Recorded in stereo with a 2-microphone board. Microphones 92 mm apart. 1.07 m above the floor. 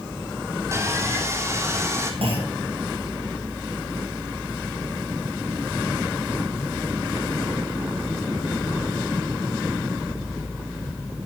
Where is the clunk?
85° right, 8.5 m.